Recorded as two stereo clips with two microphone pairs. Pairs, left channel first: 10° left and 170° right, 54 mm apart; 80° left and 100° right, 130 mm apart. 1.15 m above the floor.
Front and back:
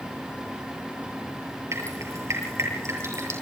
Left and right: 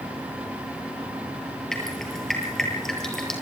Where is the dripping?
170° left, 7.5 m.